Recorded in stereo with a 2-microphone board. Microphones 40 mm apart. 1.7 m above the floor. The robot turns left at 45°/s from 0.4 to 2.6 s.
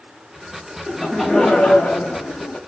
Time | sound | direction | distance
0.9 | laughter | 170° right | 0.9 m